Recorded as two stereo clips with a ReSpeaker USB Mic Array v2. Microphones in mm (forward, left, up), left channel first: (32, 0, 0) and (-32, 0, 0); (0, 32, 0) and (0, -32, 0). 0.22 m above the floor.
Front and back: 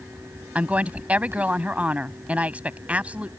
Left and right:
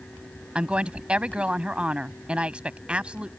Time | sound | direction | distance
0.6 | a woman speaking | 140° right | ?